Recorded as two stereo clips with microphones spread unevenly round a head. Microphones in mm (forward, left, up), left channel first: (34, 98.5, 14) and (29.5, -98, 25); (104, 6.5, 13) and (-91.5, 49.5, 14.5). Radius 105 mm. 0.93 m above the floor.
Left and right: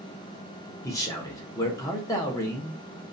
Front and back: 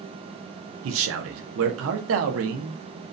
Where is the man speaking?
160° left, 0.6 m.